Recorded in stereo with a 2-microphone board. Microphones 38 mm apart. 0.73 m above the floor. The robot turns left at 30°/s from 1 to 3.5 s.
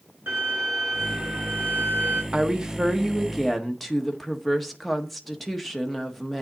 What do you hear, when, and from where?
0.3 s a violin: 105° right, 4.5 m; by 2.2 s 140° right, 4.5 m
2.3 s a woman speaking: 150° right, 1.3 m; by 6.4 s 175° left, 1.3 m